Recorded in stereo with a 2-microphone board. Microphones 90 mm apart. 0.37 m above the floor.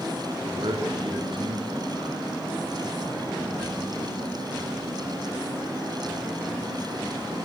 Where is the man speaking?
70° right (ahead or behind), 5.5 m.